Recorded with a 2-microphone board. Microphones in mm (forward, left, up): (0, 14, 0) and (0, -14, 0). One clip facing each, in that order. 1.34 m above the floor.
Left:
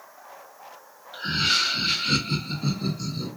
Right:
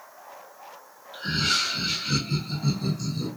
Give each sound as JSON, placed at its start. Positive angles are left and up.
{"t": 1.1, "sound": "laughter", "side_deg": 15, "distance_m": 1.6}